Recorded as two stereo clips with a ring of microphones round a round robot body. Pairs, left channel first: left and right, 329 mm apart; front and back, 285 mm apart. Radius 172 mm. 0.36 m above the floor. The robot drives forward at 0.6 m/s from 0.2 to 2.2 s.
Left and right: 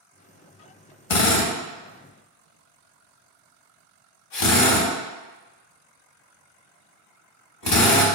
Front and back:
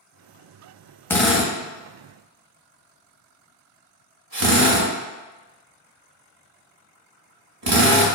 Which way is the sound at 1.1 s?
85° left.